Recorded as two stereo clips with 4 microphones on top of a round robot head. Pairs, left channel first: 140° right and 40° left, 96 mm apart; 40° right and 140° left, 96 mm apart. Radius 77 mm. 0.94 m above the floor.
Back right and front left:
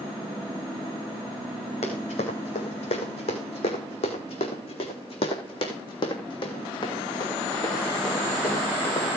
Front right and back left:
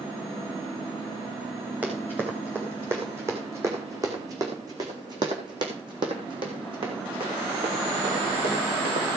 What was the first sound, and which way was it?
Running footsteps, 145° right.